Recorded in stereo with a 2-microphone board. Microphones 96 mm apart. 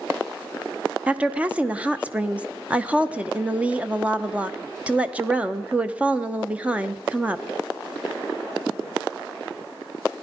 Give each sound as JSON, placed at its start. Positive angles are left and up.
{"t": 1.1, "sound": "a woman speaking", "side_deg": -15, "distance_m": 0.7}